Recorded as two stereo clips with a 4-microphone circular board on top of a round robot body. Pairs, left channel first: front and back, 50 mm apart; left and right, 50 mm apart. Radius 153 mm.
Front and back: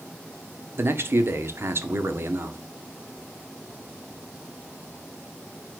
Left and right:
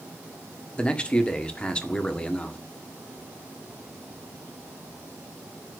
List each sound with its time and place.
0.8 s a man speaking: 155° left, 1.8 m